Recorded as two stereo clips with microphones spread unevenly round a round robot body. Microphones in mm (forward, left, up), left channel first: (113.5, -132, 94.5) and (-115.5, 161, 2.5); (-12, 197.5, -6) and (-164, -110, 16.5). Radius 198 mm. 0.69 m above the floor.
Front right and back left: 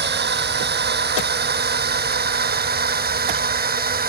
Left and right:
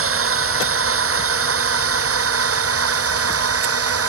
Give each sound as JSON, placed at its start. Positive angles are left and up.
{"t": 0.0, "sound": "a drone", "azimuth_deg": -165}